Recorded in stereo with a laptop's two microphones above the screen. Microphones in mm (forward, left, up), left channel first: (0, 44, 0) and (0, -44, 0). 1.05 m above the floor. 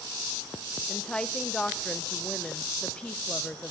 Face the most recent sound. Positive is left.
turn(degrees=10)  # may be behind; listen again after turning